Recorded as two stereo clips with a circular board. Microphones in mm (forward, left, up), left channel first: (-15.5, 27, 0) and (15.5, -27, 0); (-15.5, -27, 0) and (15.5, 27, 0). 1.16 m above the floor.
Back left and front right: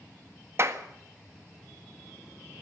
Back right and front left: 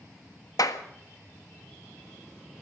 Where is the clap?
105° right, 1.5 m.